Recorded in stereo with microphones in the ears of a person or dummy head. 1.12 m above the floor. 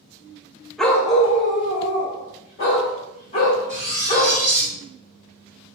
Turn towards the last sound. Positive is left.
turn(degrees=15)  # may be behind; listen again after turning